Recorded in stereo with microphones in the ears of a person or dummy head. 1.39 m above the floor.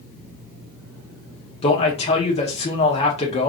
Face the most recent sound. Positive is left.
turn(degrees=25)  # may be behind; listen again after turning